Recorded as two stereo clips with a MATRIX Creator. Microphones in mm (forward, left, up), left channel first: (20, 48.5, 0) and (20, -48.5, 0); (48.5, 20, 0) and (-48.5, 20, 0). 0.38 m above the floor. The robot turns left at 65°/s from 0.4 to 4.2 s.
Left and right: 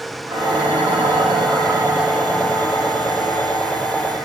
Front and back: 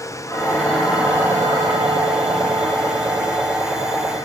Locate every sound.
0.3 s dishes clattering: 60° right, 10 m; by 4.3 s 50° left, 10 m